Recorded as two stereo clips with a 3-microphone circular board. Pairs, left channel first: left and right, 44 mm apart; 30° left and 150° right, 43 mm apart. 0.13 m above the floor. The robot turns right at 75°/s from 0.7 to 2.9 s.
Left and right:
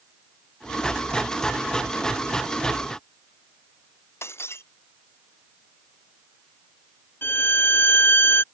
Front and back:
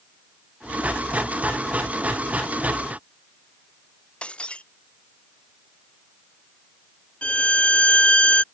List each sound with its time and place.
4.2 s breaking glass: 95° left
7.2 s a violin: 85° left